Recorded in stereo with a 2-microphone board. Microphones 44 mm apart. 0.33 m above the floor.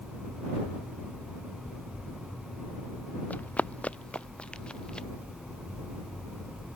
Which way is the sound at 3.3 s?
35° left (ahead or behind).